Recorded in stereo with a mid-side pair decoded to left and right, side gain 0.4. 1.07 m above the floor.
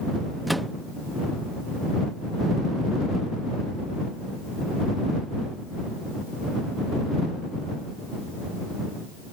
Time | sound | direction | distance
0.5 | a microwave | 10° right | ?